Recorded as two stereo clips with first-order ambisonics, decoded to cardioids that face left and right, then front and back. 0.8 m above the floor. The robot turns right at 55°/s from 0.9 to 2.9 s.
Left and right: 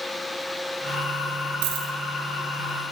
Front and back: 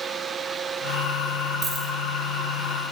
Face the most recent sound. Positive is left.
turn(degrees=-35)